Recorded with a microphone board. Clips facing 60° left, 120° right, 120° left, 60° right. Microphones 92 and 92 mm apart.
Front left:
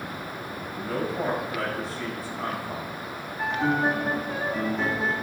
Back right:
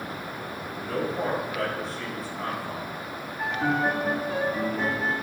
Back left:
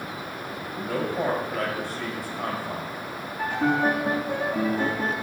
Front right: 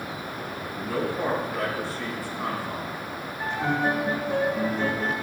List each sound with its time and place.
0.7 s a man speaking: 150° left, 3 m
3.4 s a piano: 155° left, 2.0 m